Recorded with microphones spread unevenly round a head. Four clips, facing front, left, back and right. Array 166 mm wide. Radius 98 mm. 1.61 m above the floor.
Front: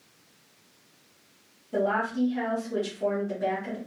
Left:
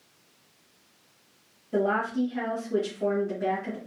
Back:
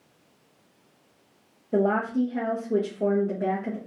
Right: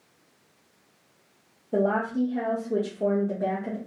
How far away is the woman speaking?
About 1.0 m.